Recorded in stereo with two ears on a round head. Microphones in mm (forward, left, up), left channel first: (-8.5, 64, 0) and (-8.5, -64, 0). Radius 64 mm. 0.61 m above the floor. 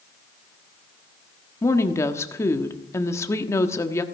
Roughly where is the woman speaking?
Centre.